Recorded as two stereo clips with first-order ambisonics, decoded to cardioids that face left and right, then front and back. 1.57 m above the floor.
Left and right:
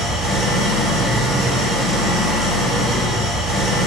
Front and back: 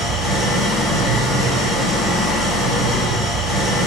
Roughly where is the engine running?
Ahead left.